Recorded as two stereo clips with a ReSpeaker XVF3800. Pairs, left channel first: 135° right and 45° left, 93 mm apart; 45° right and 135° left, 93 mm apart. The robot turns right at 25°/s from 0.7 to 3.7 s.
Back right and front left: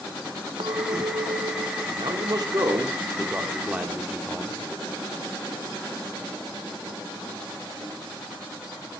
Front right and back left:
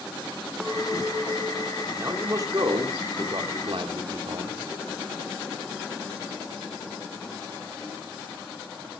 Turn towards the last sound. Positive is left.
turn(degrees=120)